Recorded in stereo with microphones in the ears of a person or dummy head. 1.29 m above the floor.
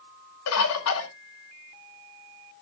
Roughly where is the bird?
Left.